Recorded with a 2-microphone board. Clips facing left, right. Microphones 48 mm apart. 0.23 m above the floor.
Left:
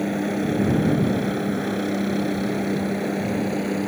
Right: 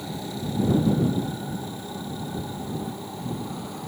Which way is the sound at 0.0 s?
55° left (ahead or behind).